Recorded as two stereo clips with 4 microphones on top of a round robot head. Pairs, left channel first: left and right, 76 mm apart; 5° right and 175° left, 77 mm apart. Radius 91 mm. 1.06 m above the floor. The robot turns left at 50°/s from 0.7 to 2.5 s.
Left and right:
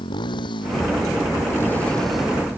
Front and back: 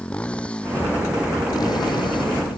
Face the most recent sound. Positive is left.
turn(degrees=-20)